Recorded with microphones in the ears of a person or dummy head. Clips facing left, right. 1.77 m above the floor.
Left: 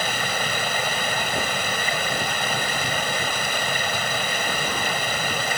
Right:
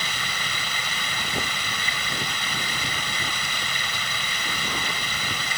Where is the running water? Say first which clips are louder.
Left 8 dB; 45° left (ahead or behind).